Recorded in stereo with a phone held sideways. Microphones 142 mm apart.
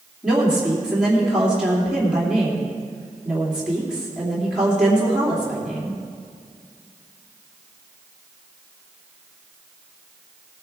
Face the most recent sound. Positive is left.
turn(degrees=-5)  # may be behind; listen again after turning